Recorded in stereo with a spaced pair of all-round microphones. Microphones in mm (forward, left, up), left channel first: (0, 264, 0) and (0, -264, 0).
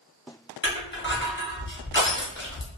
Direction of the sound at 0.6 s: 20° left (ahead or behind).